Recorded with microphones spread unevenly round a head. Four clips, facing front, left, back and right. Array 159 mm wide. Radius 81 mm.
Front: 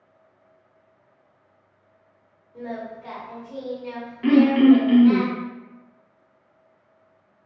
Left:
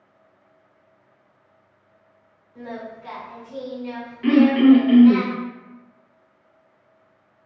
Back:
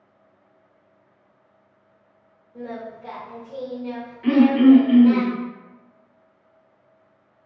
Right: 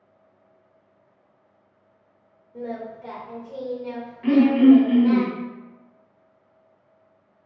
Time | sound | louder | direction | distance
2.5 | singing | right 2 dB, front 1 dB | 95° right | 1.7 m
4.2 | throat clearing | left 1 dB, back 1 dB | 30° left | 1.1 m